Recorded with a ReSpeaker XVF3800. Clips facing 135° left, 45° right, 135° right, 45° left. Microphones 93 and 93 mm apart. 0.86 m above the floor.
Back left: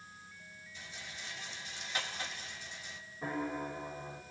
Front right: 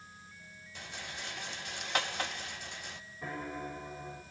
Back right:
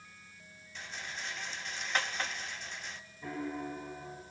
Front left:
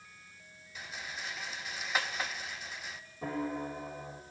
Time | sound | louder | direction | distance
0.8 | a rattle | front right 5 dB, even | 40° right | 1.2 m
3.2 | a piano | back left 3 dB, front left 3 dB | 60° left | 3 m